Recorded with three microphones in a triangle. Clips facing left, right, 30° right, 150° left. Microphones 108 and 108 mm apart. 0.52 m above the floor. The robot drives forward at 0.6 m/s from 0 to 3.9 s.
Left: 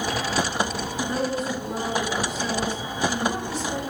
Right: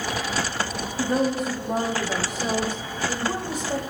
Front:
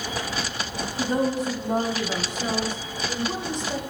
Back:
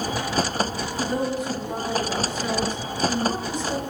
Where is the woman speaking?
50° right, 1.5 m; by 3.8 s 135° right, 1.6 m.